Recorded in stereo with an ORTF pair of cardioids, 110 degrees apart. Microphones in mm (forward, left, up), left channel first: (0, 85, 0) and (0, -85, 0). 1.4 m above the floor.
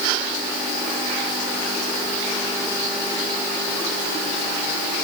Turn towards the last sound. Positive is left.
No sound to turn to.